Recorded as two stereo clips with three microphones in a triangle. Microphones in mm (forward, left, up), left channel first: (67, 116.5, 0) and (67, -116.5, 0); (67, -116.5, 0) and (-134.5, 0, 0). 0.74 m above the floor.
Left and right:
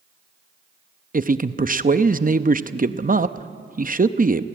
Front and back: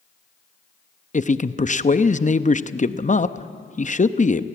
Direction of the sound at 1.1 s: 65° right.